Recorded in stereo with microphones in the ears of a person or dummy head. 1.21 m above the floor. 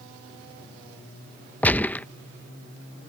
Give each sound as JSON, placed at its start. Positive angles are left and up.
{"t": 1.6, "sound": "a gunshot", "side_deg": 10}